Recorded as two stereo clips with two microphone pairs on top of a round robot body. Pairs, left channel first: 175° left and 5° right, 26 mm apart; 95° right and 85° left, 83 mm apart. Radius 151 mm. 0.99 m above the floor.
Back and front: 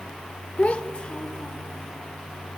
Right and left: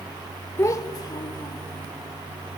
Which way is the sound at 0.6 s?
155° right.